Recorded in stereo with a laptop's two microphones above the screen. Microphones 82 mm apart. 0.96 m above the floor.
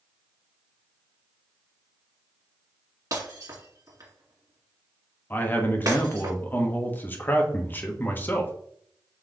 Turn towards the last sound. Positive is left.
turn(degrees=25)  # may be behind; listen again after turning